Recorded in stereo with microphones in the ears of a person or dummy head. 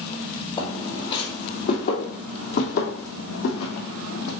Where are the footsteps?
30° left (ahead or behind), 3 m; by 4.3 s 60° left (ahead or behind), 3.5 m.